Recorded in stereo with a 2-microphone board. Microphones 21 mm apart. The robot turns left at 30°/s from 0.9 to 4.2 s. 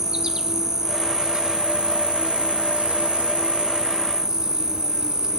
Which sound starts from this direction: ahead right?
An insect, at 0.0 s.